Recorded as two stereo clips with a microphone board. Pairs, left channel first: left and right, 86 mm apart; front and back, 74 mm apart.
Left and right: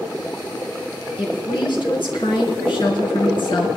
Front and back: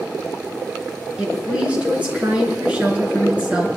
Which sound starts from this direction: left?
A woman speaking, at 1.2 s.